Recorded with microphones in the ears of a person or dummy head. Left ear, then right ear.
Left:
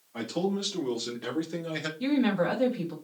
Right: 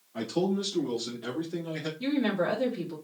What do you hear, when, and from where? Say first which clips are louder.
0.1 s a man speaking: right 1 dB; 25° left (ahead or behind), 2.5 m; by 1.9 s 65° left (ahead or behind), 1.6 m
2.0 s a woman speaking: left 1 dB; 20° left (ahead or behind), 2.0 m